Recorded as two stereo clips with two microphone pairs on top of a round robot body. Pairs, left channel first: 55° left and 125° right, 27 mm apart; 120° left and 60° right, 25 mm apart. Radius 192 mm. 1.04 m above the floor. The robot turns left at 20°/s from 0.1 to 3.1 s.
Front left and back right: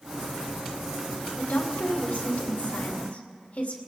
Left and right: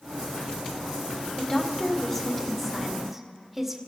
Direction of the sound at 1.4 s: 65° left.